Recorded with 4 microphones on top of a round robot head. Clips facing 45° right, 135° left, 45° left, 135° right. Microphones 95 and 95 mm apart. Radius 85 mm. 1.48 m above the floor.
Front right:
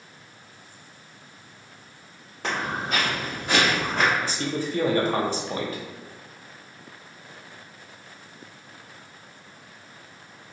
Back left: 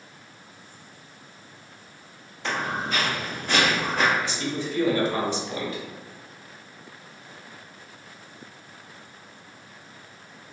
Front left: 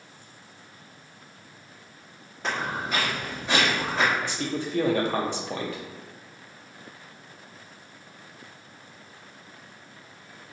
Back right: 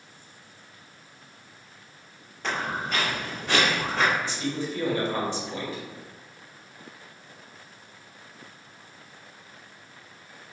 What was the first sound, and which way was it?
Footsteps, 35° right.